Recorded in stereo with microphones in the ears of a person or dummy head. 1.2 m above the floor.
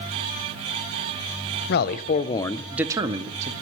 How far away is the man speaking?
About 0.8 m.